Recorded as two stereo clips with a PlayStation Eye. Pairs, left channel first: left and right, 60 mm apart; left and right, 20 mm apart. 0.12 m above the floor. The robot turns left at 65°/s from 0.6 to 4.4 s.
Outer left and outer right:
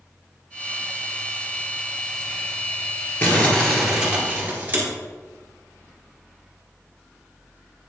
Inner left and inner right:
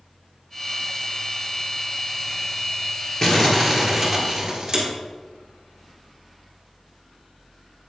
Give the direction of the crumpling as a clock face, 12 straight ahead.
11 o'clock.